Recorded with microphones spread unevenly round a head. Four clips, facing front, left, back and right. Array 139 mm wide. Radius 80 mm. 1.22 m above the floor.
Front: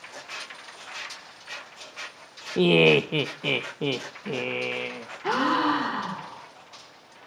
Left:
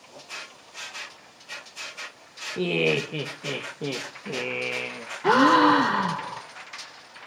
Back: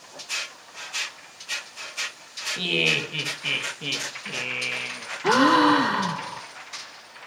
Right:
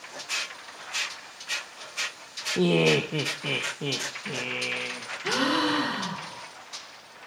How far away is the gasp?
About 1.7 m.